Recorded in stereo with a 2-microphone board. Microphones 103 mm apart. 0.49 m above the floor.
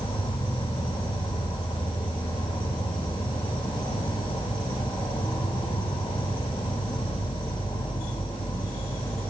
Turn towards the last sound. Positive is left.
turn(degrees=55)  # may be behind; listen again after turning